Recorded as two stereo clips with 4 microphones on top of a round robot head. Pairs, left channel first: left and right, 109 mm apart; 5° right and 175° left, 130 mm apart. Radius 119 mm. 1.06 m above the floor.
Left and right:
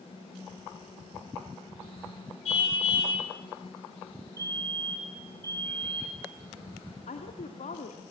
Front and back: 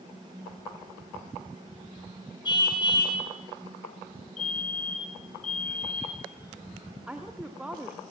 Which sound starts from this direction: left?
A woman speaking, at 7.1 s.